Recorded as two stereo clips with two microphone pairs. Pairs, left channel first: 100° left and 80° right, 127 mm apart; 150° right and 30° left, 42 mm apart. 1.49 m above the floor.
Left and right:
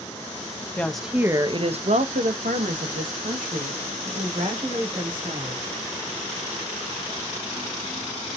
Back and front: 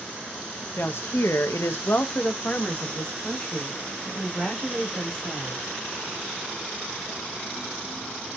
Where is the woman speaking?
Straight behind, 0.6 m; by 5.7 s 70° right, 2.5 m.